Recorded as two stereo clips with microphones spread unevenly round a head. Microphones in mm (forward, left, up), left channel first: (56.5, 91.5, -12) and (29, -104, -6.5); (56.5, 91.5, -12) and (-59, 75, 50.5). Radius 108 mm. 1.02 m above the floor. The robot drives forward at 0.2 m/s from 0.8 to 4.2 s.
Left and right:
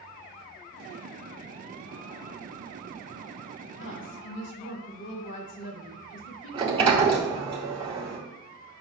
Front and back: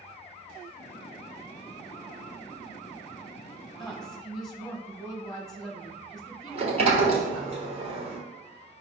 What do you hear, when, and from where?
3.8 s a woman speaking: 90° left, 1.8 m; by 7.5 s 95° left, 1.8 m
6.5 s a sliding door: 160° right, 1.3 m